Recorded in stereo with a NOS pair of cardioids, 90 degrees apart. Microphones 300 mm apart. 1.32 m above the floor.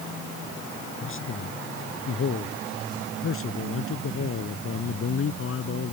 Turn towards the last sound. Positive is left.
turn(degrees=50)